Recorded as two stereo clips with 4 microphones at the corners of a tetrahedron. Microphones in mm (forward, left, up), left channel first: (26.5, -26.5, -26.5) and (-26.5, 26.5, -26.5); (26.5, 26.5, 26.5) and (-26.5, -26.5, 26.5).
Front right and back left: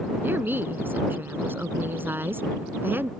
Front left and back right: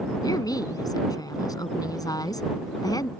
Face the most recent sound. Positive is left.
turn(degrees=75)